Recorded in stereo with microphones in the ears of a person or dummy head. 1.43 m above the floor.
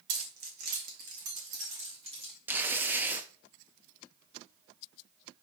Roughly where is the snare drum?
No snare drum in this recording.